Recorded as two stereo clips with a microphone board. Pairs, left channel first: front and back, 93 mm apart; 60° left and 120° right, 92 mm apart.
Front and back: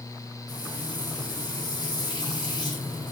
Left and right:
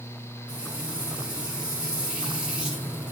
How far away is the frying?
About 1.6 m.